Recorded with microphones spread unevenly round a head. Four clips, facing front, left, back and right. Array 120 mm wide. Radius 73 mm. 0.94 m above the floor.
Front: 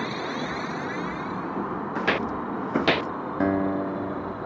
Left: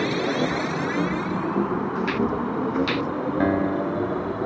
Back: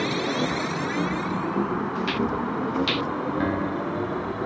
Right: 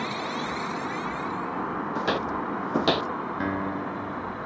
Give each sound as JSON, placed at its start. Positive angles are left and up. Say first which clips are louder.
{"t": 0.0, "sound": "a machine running", "louder": "left 7 dB, back 4 dB", "azimuth_deg": 110}
{"t": 1.9, "sound": "footsteps", "louder": "left 1 dB, back 1 dB", "azimuth_deg": -35}
{"t": 3.4, "sound": "a guitar", "louder": "left 9 dB, front 7 dB", "azimuth_deg": 50}